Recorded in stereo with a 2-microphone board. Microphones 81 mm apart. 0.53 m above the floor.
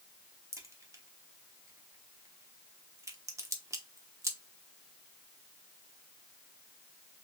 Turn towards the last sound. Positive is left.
turn(degrees=-35)  # may be behind; listen again after turning